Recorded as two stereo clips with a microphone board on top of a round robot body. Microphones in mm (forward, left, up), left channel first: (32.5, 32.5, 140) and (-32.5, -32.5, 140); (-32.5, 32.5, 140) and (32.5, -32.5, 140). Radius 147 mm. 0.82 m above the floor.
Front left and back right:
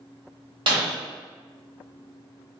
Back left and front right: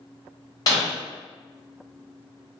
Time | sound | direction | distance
0.7 | breaking glass | 170° right | 1.5 m